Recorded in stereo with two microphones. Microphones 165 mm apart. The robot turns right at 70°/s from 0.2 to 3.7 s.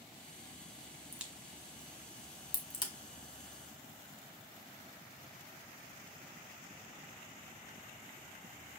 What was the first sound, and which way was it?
A crack, 10° right (ahead or behind).